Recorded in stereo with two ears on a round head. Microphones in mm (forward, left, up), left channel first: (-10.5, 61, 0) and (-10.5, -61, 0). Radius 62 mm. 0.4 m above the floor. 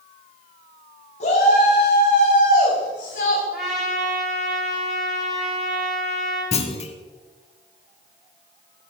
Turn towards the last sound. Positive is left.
turn(degrees=50)  # may be behind; listen again after turning